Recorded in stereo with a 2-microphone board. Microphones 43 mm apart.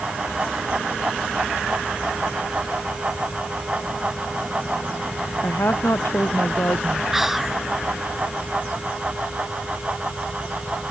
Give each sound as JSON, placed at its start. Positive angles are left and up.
{"t": 5.4, "sound": "a woman speaking", "side_deg": 75}
{"t": 7.1, "sound": "whispering", "side_deg": -5}